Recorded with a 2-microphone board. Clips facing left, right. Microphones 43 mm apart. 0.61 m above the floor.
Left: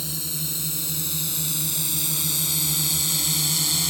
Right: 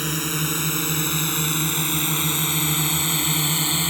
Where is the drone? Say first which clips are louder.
Right 9 dB; 60° right (ahead or behind); by 3.9 s 30° right (ahead or behind).